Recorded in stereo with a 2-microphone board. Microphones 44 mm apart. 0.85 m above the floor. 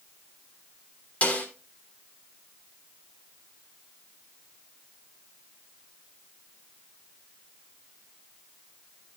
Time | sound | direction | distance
1.2 | a snare drum | 35° left (ahead or behind) | 3 m